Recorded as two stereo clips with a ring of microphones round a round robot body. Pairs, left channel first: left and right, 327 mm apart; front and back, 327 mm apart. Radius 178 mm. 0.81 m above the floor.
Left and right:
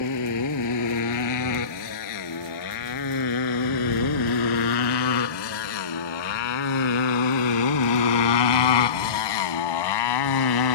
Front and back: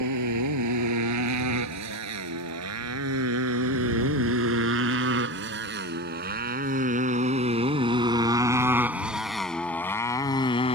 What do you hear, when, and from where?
0.0 s a motorcycle: 135° left; by 10.8 s 75° left